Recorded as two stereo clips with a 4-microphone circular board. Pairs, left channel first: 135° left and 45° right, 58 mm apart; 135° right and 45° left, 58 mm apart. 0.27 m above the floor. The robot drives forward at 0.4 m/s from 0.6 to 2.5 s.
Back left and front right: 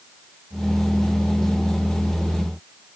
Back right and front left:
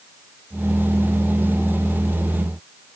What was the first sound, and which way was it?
Only background noise.